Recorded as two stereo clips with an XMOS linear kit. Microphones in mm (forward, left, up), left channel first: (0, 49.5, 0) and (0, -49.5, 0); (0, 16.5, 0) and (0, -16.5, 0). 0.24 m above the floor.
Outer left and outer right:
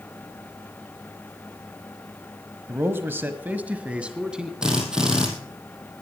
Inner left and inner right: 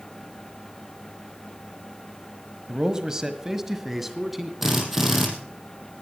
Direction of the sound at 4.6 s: 5° right (ahead or behind).